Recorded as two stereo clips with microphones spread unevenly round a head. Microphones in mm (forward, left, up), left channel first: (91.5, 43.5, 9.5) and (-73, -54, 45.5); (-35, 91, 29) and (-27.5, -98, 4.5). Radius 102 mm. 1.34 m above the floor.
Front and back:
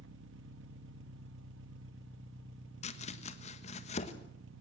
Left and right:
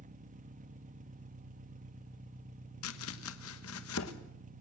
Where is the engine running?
135° right, 1.3 m.